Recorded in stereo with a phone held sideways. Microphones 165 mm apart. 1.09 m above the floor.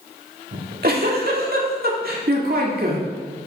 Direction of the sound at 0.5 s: 65° right (ahead or behind).